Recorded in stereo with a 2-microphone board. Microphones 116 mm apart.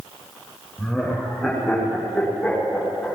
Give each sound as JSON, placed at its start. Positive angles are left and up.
{"t": 0.8, "sound": "laughter", "side_deg": -5, "distance_m": 9.0}